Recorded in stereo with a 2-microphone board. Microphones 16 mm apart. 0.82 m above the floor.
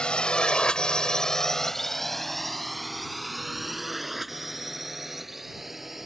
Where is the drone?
80° left; by 6.1 s 15° right (ahead or behind).